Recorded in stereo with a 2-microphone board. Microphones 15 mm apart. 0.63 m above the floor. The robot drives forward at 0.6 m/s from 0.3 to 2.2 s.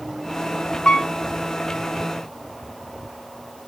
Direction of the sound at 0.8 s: 55° left (ahead or behind).